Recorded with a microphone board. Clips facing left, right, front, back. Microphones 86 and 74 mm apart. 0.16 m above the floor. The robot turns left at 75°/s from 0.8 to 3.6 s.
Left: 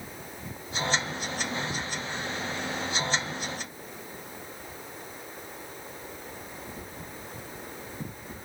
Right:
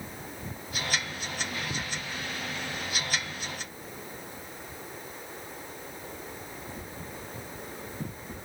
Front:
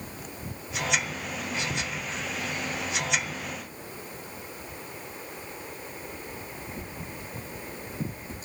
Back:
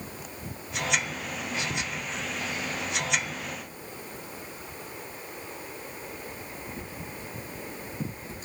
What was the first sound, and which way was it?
Only background noise.